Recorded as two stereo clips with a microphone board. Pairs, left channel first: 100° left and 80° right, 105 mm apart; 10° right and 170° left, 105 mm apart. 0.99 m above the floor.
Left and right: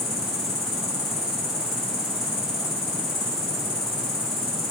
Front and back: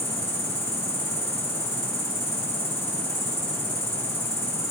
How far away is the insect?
About 3.5 m.